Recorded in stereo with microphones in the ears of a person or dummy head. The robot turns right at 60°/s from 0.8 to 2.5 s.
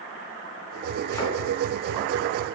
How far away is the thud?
About 3.5 m.